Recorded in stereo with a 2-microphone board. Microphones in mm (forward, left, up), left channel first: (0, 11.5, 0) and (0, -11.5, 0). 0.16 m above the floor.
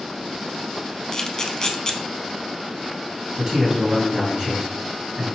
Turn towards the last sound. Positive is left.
turn(degrees=-35)  # may be behind; listen again after turning